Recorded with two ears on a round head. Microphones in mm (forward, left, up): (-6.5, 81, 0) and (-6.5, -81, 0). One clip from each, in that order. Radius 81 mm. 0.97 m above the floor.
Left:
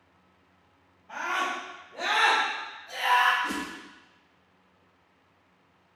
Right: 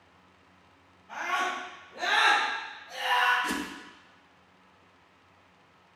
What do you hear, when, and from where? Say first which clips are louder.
1.1 s a scream: even; 10° right (ahead or behind), 3.5 m; by 3.3 s 60° left (ahead or behind), 1.7 m
3.4 s a whoosh: even; 65° right (ahead or behind), 1.1 m